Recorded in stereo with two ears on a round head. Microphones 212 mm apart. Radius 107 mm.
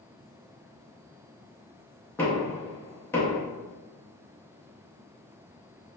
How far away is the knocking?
About 0.6 m.